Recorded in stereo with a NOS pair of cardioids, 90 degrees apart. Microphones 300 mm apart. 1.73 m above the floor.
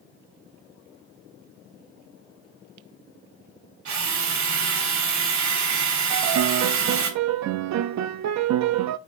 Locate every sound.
3.9 s a drill: 65° right, 4 m
6.1 s a piano: 65° right, 0.6 m